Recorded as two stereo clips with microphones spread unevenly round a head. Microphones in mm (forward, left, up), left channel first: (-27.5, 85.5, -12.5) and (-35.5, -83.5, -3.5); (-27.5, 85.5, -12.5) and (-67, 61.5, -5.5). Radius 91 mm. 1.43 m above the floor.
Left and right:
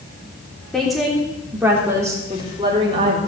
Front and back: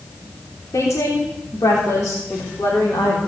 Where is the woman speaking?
Straight ahead, 3.5 m; by 3.2 s 30° right, 3.5 m.